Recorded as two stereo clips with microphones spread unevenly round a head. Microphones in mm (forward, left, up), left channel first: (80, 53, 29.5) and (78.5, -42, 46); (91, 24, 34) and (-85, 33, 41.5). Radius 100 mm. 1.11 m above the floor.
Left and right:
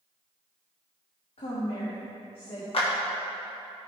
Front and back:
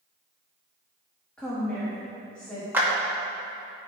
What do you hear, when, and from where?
1.4 s a woman speaking: 80° left, 1.9 m
2.7 s a clap: 100° left, 2 m